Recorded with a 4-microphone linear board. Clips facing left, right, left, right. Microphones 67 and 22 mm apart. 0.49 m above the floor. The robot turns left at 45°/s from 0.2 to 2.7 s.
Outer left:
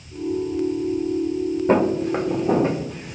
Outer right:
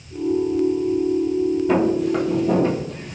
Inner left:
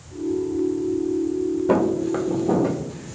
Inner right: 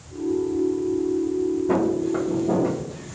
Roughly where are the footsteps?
Left.